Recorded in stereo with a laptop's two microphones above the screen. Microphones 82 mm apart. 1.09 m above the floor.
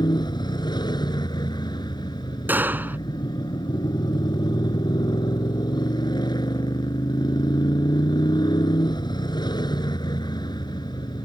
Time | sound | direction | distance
0.0 | a motorcycle | 60° left (ahead or behind) | ?
2.5 | a gunshot | 25° right (ahead or behind) | ?